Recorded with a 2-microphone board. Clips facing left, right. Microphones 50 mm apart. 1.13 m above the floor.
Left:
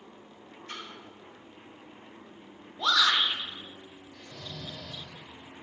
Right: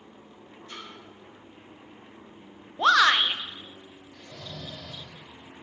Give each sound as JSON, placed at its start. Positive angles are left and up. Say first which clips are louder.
{"t": 0.7, "sound": "a splash", "louder": "left 1 dB", "side_deg": 50, "distance_m": 2.5}
{"t": 2.8, "sound": "a shout", "louder": "right 6 dB", "side_deg": -45, "distance_m": 0.6}
{"t": 4.1, "sound": "snoring", "louder": "right 2 dB", "side_deg": -75, "distance_m": 2.5}